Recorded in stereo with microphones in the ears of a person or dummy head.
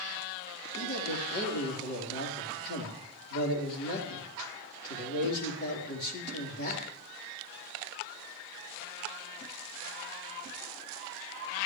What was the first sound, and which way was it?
A man speaking, 55° left (ahead or behind).